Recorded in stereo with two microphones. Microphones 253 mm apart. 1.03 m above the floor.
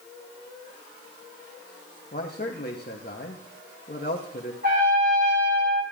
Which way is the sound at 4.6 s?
35° right (ahead or behind).